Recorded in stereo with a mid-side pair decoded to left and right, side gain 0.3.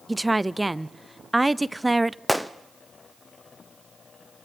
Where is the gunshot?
5° right, 0.9 m.